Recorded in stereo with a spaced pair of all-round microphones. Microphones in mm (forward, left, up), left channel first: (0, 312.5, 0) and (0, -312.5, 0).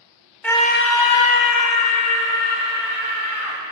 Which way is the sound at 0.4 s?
Centre (ahead or behind).